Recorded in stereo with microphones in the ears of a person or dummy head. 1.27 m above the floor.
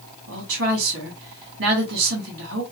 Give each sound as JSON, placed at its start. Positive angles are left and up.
{"t": 0.3, "sound": "a woman speaking", "side_deg": -65, "distance_m": 1.8}